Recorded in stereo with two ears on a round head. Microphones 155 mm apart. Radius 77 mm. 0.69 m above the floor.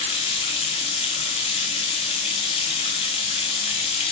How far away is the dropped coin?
No dropped coin in this recording.